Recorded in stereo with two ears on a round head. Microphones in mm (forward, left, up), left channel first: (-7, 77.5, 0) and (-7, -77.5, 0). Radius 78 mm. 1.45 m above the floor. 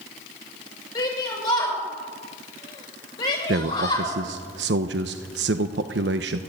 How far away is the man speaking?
About 1.0 m.